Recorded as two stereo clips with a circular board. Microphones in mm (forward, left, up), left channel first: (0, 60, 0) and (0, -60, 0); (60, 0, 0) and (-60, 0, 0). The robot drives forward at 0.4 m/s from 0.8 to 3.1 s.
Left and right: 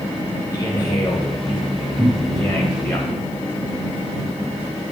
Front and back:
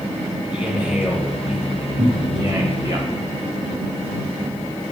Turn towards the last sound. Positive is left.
turn(degrees=180)